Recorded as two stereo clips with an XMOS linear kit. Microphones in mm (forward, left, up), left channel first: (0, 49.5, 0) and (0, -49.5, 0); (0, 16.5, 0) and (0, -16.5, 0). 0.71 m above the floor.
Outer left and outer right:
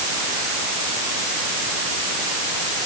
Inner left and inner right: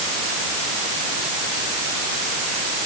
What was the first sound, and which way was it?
Only background noise.